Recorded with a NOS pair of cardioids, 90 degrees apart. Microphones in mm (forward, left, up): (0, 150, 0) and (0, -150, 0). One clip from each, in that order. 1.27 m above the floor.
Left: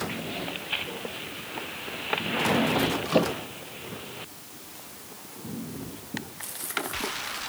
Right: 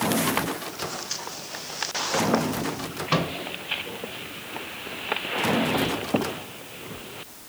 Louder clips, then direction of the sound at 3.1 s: Even; 65° right.